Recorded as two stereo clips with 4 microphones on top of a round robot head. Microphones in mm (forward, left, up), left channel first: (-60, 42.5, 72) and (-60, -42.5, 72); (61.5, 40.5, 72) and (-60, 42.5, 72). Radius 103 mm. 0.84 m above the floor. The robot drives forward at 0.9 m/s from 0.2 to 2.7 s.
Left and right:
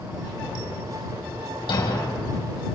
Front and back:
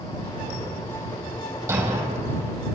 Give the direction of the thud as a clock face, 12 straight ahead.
8 o'clock.